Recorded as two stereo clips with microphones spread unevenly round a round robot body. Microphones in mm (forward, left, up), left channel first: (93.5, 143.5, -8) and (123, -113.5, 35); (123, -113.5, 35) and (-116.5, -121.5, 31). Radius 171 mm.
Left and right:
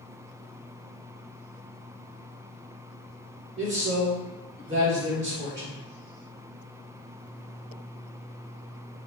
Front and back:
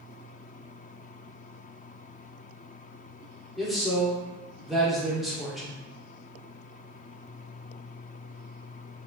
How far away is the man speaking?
About 1.2 m.